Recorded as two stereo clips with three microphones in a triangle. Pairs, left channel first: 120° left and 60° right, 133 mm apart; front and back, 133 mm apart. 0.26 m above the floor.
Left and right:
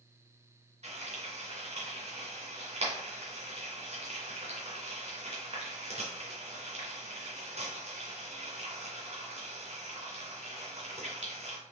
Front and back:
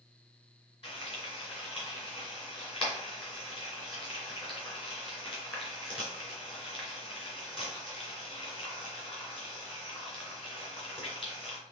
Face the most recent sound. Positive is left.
turn(degrees=-40)